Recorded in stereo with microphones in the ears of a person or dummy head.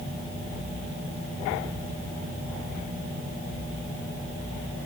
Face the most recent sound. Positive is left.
No sound to turn to.